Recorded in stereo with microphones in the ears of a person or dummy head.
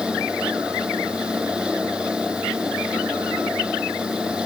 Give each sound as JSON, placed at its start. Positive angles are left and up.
{"t": 0.0, "sound": "a fan", "side_deg": -5}